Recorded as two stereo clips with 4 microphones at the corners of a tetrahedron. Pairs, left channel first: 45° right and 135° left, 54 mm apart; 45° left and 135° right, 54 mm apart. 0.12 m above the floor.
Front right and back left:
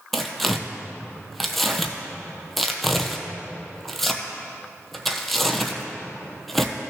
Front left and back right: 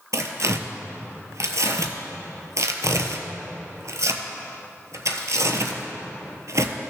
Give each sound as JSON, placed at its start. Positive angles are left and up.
{"t": 0.1, "sound": "tearing paper", "azimuth_deg": -130, "distance_m": 0.8}